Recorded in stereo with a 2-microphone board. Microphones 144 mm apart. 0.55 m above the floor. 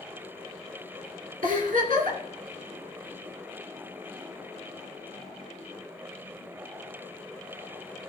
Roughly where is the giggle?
Right.